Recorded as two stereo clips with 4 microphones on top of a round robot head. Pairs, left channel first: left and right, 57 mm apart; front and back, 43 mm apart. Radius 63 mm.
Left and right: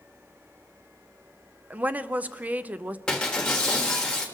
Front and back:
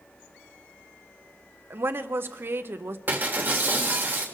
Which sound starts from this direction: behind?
Breaking glass, at 3.1 s.